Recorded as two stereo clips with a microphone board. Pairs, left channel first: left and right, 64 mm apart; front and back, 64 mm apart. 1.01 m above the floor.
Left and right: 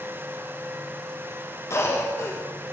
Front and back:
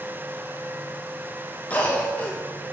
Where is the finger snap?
I don't hear a finger snap.